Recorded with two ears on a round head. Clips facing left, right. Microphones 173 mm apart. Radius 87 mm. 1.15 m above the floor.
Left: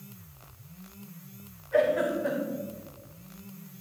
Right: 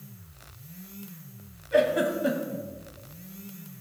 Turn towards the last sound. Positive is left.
turn(degrees=-45)  # may be behind; listen again after turning